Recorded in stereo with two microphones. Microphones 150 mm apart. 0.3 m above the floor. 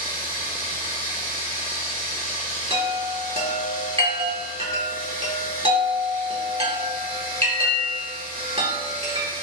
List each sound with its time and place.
0.0 s running water: 80° right, 1.0 m
2.7 s a chime: 40° right (ahead or behind), 0.8 m